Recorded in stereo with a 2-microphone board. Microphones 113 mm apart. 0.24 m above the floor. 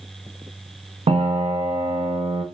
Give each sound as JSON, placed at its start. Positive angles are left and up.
{"t": 1.1, "sound": "a piano", "side_deg": -60, "distance_m": 0.5}